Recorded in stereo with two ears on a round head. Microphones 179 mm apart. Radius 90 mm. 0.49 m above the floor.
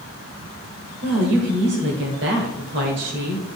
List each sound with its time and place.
1.0 s a woman speaking: 60° right (ahead or behind), 1.6 m